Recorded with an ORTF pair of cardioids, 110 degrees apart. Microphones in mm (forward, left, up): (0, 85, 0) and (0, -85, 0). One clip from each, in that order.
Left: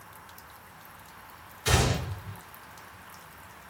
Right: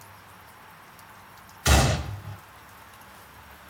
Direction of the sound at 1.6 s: 50° right.